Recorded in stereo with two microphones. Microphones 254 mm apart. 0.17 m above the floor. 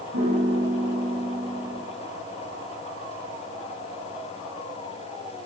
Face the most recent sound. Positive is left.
turn(degrees=-85)